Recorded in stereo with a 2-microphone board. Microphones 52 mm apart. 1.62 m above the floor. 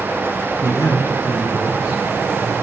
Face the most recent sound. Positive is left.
turn(degrees=80)